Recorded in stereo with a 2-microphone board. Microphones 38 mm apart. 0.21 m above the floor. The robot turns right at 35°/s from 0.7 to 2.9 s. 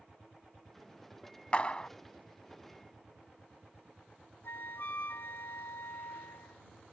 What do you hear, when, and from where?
1.5 s a clap: 30° left (ahead or behind); by 1.9 s 25° left (ahead or behind)
4.4 s a flute: 65° left (ahead or behind)